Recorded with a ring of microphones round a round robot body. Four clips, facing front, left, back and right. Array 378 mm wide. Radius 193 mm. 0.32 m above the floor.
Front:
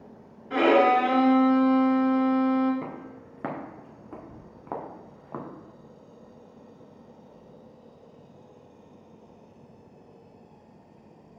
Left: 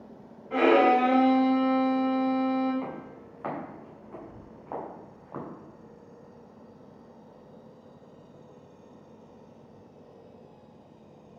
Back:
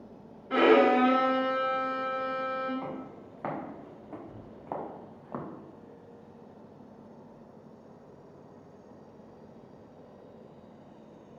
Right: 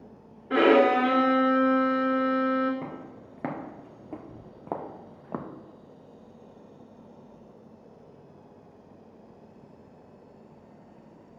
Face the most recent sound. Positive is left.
turn(degrees=-90)